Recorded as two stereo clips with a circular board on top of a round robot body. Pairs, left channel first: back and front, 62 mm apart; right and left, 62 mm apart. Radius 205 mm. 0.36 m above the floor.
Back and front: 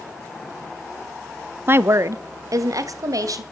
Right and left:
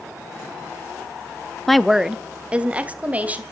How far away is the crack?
No crack in this recording.